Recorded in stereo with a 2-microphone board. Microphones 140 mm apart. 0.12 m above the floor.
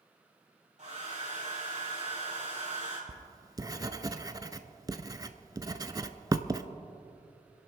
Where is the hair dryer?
60° right (ahead or behind), 3.5 m.